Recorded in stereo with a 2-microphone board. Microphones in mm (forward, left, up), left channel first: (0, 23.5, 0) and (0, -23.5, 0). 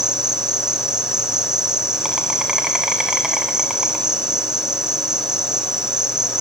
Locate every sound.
0.0 s an insect: 15° right (ahead or behind), 2.5 m